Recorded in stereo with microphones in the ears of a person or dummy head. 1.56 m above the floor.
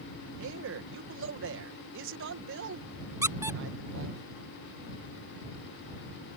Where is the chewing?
No chewing in this recording.